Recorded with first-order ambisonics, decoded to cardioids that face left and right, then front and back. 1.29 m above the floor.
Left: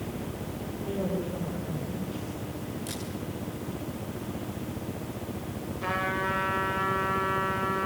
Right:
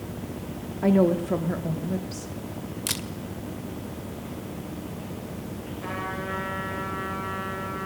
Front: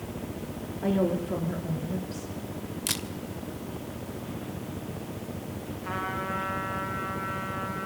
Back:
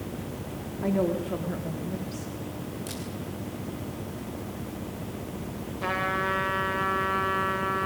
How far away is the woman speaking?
About 2.5 m.